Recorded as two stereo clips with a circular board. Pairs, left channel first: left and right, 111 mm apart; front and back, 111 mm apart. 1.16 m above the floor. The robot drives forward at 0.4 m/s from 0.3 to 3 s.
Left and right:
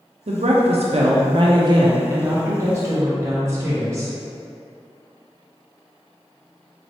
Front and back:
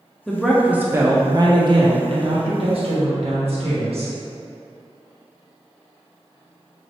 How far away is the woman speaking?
About 0.5 m.